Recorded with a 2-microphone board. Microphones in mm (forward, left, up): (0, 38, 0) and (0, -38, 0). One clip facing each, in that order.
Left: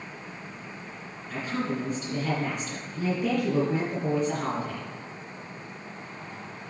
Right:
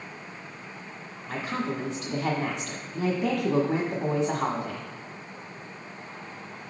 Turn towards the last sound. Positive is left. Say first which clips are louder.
# even
turn(degrees=-75)  # may be behind; listen again after turning